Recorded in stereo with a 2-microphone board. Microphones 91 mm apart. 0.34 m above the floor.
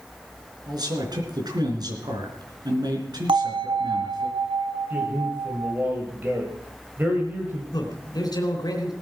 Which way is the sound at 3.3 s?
75° right (ahead or behind).